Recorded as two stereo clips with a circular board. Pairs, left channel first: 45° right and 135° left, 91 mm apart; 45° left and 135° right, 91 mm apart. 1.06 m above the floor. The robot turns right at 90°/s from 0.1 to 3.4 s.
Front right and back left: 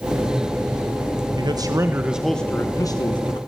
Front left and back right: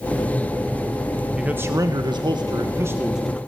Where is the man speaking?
140° left, 1.2 m; by 3.4 s 35° right, 1.2 m.